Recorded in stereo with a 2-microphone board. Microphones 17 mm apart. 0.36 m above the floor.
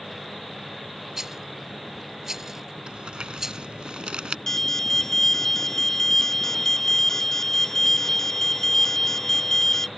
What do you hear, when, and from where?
1.2 s a rattle: 25° right (ahead or behind)
2.9 s crumpling: 80° right
4.5 s an alarm: 25° left (ahead or behind)